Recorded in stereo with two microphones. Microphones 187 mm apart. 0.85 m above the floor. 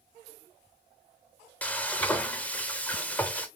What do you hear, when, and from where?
1.6 s frying: 10° left (ahead or behind), 0.7 m